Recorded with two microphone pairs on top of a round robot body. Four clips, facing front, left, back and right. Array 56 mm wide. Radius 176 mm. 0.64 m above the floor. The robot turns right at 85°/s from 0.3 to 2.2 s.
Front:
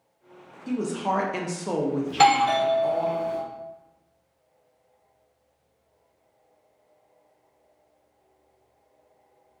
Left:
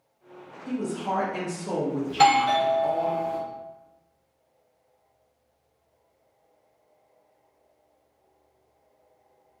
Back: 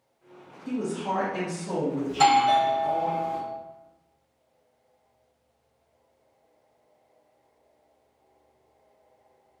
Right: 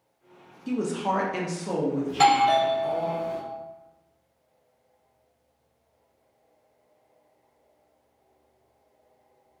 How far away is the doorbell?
About 1.4 m.